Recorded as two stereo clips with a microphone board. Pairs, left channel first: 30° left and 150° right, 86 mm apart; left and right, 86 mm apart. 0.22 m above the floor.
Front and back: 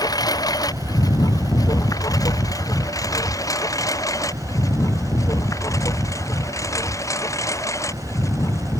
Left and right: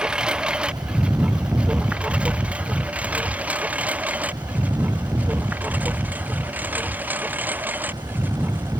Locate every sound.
0.0 s a lawn mower: 10° right; by 8.8 s 20° right